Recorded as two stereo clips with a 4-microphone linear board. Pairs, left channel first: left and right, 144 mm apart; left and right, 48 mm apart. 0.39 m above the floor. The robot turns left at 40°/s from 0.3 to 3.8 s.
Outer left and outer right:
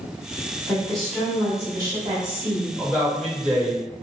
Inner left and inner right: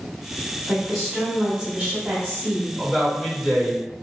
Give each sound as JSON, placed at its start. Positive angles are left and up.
{"t": 0.7, "sound": "a woman speaking", "azimuth_deg": 20, "distance_m": 1.1}
{"t": 2.8, "sound": "a man speaking", "azimuth_deg": 20, "distance_m": 1.4}